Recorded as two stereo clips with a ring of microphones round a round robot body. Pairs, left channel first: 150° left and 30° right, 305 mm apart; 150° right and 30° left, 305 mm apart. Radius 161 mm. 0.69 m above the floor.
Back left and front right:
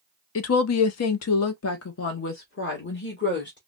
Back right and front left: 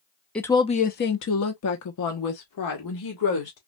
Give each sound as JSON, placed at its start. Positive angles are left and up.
{"t": 0.3, "sound": "a woman speaking", "azimuth_deg": 125, "distance_m": 0.7}